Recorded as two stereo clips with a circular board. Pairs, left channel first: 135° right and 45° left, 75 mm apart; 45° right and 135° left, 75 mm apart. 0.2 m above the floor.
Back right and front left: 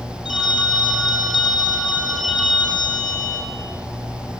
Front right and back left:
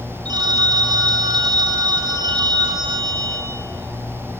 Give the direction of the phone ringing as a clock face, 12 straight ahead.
7 o'clock.